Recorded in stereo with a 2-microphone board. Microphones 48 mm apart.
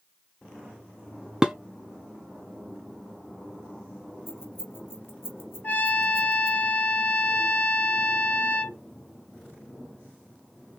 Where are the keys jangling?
55° left (ahead or behind), 1.8 m.